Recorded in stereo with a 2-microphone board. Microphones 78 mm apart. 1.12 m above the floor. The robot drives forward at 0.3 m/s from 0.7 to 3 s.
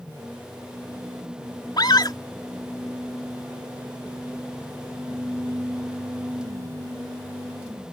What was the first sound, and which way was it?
A scream, 65° left (ahead or behind).